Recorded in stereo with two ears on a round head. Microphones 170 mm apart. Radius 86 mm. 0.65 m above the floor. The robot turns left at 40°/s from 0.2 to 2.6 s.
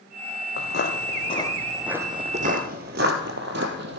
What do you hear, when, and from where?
0.6 s footsteps: 60° left (ahead or behind), 1.2 m; by 4.0 s 65° right (ahead or behind), 1.4 m